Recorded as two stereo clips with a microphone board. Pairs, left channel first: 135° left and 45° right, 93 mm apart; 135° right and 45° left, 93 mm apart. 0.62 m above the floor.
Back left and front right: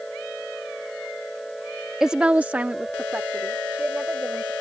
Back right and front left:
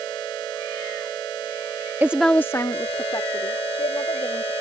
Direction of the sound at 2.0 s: 30° left.